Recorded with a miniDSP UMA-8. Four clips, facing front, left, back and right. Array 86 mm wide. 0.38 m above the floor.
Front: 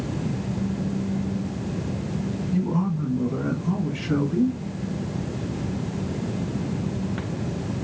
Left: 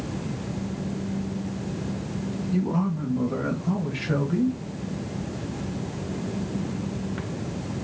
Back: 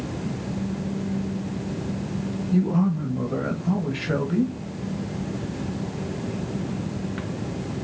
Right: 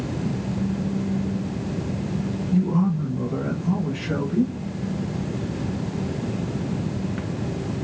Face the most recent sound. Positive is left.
turn(degrees=-175)